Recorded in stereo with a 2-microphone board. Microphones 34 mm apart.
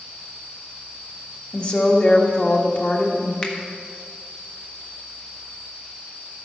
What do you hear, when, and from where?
1.5 s a woman speaking: 40° left (ahead or behind), 1.7 m
3.4 s a finger snap: 20° left (ahead or behind), 1.3 m